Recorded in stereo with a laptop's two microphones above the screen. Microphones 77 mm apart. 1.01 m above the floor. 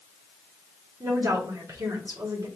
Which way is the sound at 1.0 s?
45° right (ahead or behind).